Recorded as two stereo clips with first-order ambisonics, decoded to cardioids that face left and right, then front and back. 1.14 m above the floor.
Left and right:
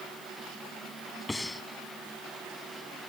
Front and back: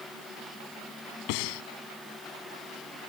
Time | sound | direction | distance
1.3 | breathing | 5° left | ?